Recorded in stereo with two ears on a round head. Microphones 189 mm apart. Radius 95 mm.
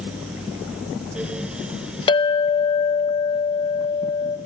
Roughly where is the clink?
Left.